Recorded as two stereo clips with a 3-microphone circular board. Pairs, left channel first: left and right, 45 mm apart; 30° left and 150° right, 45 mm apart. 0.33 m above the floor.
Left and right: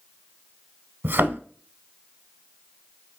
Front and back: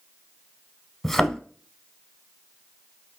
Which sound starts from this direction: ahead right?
A thud, at 1.0 s.